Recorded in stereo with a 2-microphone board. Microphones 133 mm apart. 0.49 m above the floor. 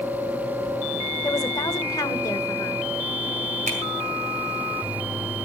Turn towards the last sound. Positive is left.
turn(degrees=-75)  # may be behind; listen again after turning